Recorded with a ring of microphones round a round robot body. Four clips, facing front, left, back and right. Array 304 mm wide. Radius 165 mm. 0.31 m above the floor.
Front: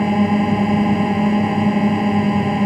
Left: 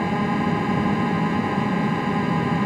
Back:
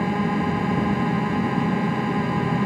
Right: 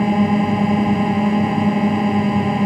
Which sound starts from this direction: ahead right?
A drone, at 0.0 s.